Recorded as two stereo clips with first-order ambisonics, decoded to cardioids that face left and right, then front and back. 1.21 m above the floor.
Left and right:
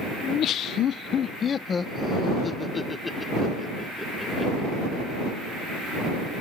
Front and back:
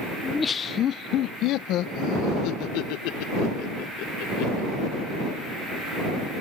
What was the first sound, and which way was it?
Laughter, 75° left.